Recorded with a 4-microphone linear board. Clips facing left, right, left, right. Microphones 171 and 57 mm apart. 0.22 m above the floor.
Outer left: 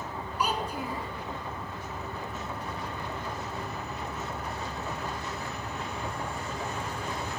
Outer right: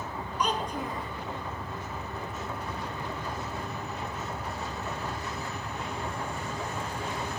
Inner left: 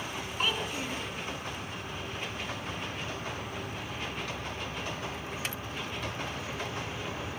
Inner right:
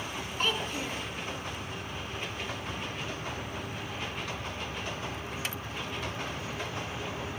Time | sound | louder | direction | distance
0.4 | a child speaking | outer right 1 dB, inner right 1 dB | 10° left (ahead or behind) | 1.7 m